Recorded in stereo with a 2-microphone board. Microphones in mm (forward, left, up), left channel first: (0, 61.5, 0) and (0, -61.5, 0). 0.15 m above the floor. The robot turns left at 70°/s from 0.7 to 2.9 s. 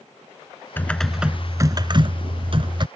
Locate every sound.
0.8 s typing on a keyboard: 20° left; by 2.9 s 125° right